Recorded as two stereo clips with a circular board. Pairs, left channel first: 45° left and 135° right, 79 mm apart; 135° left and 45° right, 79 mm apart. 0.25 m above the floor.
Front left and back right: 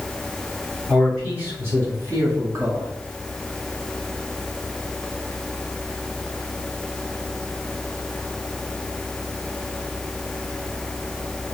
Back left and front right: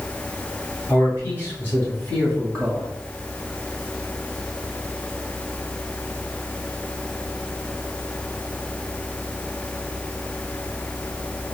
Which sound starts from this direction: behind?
A man speaking, at 0.9 s.